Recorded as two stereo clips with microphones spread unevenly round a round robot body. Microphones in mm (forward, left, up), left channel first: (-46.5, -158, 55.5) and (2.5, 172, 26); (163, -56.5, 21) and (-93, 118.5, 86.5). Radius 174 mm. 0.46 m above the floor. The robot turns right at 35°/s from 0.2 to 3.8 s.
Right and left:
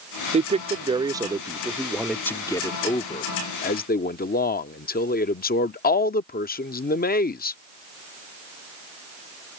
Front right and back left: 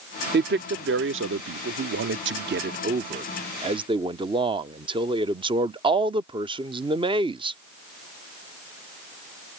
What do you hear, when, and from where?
0.3 s a man speaking: 105° left; by 7.6 s 135° right